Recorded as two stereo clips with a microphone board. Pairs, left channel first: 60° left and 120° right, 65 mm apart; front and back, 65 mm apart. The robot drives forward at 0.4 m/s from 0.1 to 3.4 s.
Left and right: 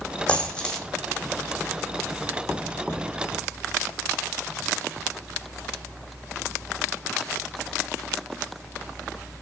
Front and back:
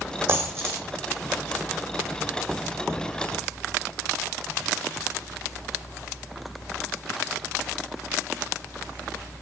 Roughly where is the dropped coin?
Behind left.